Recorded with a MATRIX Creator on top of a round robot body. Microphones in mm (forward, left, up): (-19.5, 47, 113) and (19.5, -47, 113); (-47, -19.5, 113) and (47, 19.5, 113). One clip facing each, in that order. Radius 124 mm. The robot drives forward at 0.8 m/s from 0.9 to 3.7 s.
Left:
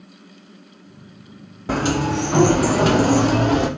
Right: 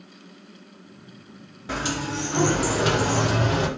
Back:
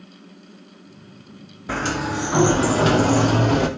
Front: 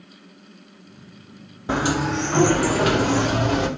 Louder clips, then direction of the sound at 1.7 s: Left 8 dB, front 2 dB; 85° left.